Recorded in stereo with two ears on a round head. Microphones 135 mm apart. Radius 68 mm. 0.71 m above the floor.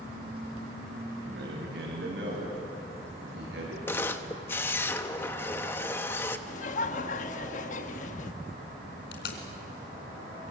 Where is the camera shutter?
15° left (ahead or behind), 1.0 m.